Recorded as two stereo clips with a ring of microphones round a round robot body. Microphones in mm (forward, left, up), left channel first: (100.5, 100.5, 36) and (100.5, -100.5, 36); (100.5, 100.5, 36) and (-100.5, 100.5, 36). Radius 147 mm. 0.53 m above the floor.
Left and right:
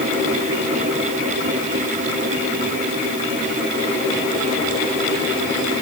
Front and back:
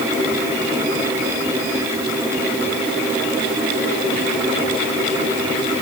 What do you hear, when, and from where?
Only background noise.